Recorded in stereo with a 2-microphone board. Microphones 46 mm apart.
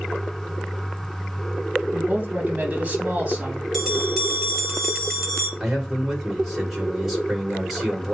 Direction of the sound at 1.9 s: 25° right (ahead or behind).